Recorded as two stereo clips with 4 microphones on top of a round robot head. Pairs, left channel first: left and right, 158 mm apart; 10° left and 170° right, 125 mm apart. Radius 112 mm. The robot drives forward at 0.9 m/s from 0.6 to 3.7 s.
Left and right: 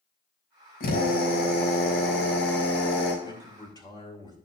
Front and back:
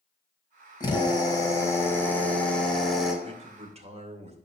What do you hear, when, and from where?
0.8 s a drill: 65° left, 3.5 m; by 3.1 s 100° left, 3.5 m
3.2 s a man speaking: 155° left, 2.0 m; by 4.3 s 160° left, 2.5 m